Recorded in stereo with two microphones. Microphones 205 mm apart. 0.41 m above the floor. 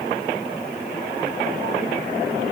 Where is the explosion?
No explosion in this recording.